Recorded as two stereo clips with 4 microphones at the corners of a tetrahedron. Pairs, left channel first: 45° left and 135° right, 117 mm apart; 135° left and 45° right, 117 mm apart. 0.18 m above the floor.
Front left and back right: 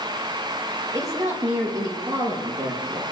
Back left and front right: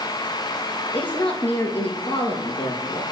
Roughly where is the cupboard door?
No cupboard door in this recording.